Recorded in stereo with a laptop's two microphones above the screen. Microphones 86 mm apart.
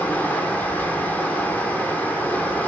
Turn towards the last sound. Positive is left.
turn(degrees=20)  # may be behind; listen again after turning